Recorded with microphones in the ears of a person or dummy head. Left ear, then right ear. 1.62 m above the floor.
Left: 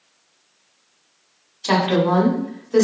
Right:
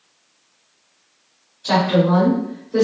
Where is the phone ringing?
No phone ringing in this recording.